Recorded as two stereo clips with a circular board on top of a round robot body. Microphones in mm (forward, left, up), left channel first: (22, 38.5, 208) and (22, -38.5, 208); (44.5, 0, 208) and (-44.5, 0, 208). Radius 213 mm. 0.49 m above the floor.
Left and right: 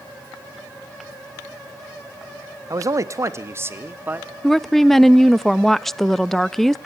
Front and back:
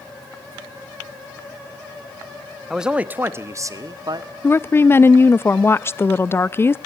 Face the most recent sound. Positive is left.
turn(degrees=5)